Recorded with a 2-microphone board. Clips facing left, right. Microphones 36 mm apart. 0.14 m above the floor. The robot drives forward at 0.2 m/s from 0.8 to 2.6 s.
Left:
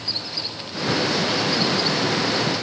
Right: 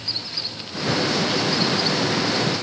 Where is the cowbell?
I don't hear a cowbell.